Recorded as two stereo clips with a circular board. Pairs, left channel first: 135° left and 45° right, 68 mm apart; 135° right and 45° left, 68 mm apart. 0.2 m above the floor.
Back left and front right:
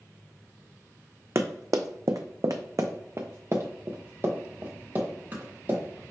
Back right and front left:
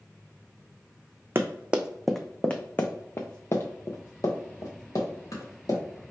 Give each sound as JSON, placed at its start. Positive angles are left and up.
{"t": 1.4, "sound": "running footsteps", "azimuth_deg": -10, "distance_m": 0.6}